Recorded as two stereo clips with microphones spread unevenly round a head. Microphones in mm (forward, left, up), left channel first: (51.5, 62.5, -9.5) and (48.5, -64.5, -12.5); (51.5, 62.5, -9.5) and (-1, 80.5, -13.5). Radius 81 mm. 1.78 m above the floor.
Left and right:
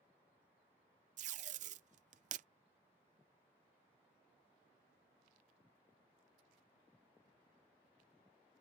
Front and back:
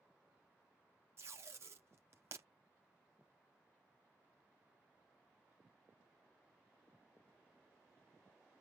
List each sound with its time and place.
1.2 s tape being pulled: 135° right